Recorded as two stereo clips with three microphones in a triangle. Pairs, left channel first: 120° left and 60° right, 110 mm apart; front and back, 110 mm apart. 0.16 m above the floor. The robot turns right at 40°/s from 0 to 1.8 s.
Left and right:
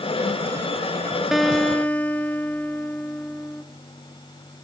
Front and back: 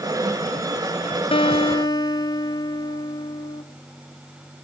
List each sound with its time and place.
1.3 s a guitar: 25° left, 0.5 m; by 3.6 s 45° left, 0.5 m